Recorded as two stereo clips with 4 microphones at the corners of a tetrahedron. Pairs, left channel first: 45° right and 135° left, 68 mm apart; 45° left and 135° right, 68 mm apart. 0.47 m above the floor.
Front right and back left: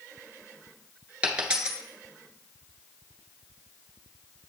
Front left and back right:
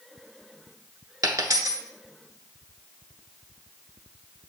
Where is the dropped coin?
150° right, 1.0 m.